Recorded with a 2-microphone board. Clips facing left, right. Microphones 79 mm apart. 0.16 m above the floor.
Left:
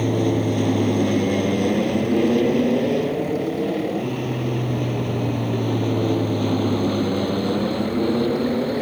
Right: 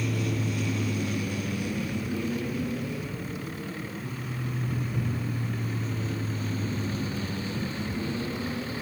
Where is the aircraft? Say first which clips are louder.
Left 10 dB; 55° left (ahead or behind).